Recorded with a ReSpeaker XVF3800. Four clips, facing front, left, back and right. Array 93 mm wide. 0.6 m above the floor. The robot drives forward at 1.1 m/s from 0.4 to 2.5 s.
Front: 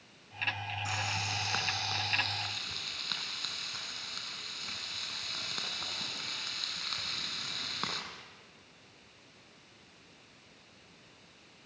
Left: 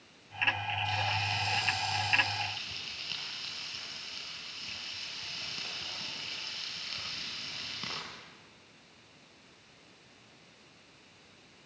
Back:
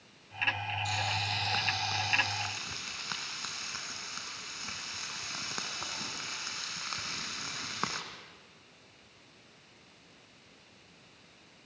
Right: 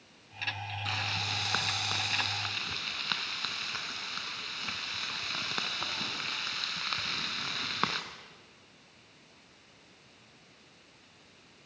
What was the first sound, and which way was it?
Frying, 65° right.